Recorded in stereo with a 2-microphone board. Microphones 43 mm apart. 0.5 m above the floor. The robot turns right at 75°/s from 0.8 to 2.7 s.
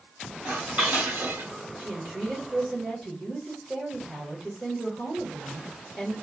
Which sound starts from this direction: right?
A woman speaking, at 1.8 s.